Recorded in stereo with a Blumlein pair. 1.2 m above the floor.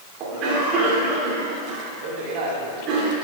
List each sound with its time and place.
0.2 s a cough: 35° right, 3 m